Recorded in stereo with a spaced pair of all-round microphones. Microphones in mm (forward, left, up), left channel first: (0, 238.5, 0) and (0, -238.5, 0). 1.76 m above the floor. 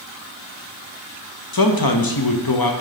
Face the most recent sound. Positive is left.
turn(degrees=45)  # may be behind; listen again after turning